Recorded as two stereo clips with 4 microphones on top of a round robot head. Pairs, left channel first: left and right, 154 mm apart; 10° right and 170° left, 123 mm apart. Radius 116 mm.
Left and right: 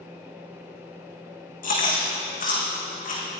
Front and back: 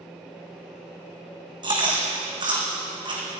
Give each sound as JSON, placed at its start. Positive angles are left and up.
{"t": 1.6, "sound": "chewing", "azimuth_deg": 120, "distance_m": 4.5}